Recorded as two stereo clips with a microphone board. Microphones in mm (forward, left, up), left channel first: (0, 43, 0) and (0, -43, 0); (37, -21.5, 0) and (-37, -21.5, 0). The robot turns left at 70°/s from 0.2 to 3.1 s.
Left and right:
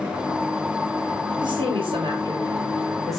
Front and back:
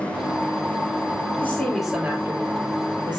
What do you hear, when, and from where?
1.4 s a woman speaking: 65° right, 6 m; by 3.2 s 175° left, 6 m